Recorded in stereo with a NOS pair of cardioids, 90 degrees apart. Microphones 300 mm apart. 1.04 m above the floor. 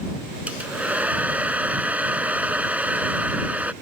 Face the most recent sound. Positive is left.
turn(degrees=-5)